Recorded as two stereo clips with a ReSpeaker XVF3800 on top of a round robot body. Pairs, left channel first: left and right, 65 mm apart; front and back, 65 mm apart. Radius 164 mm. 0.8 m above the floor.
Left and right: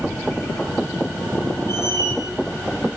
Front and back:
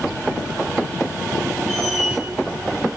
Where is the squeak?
90° right, 8.5 m.